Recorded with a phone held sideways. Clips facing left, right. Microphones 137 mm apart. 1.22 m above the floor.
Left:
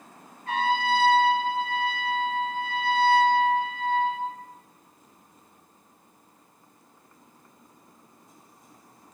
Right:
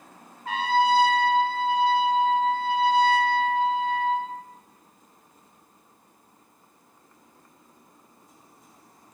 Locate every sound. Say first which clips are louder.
0.5 s a trumpet: right 3 dB; 75° right (ahead or behind), 0.8 m